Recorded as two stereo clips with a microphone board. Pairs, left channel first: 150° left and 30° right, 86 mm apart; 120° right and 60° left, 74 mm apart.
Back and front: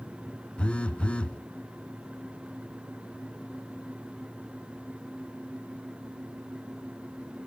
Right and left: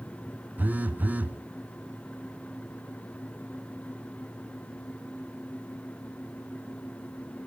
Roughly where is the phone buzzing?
Left.